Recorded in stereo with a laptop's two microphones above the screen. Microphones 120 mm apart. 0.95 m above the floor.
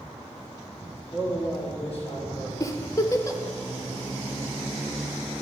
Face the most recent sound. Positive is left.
turn(degrees=25)  # may be behind; listen again after turning